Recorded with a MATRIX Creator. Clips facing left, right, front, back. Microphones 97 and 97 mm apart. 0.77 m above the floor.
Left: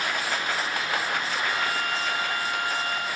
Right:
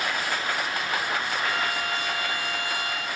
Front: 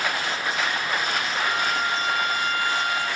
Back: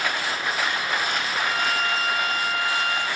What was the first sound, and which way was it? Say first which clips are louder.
A violin: even, even; 95° right.